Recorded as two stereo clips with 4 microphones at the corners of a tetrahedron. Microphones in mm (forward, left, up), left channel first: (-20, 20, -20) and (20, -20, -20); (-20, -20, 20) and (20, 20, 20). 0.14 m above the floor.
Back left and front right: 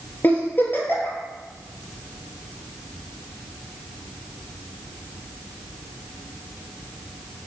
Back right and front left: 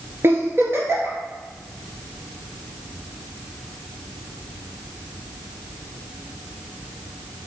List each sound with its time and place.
0.2 s a giggle: 85° left, 2 m